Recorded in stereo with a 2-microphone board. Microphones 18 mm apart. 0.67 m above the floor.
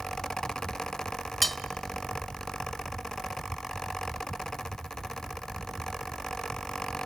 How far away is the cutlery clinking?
About 0.5 m.